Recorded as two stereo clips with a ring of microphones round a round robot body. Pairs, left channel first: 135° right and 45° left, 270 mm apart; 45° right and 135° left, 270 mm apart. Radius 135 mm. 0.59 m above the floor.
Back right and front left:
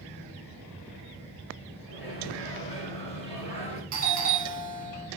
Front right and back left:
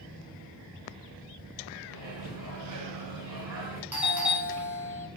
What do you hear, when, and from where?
1.9 s a microwave: 160° left, 1.3 m
3.9 s a doorbell: 55° left, 1.1 m